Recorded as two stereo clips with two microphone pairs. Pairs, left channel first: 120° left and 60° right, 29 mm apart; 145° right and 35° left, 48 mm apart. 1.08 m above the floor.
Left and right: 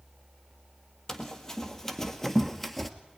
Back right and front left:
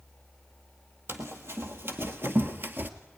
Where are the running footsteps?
50° left, 2 m; by 2.9 s 35° left, 1.3 m.